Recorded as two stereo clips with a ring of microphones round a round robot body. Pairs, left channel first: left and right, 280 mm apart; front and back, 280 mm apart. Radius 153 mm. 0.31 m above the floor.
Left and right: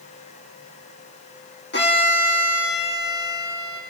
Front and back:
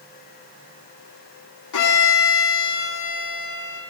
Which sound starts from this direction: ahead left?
A violin, at 1.7 s.